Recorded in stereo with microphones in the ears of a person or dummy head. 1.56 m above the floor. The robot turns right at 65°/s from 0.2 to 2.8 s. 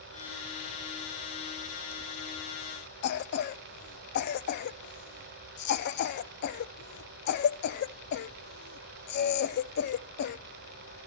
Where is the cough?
60° left (ahead or behind), 0.8 m.